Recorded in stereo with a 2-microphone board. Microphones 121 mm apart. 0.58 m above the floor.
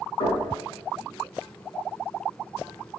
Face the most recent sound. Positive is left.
turn(degrees=65)  # may be behind; listen again after turning